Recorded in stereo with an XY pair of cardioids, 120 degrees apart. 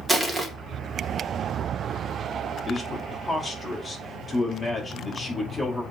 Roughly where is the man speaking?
Ahead.